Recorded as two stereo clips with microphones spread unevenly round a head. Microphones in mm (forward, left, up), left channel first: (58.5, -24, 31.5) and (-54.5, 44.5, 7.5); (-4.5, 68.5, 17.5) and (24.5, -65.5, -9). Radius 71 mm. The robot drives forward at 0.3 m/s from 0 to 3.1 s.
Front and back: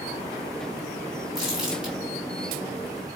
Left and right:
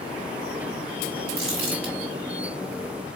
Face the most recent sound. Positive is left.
turn(degrees=-135)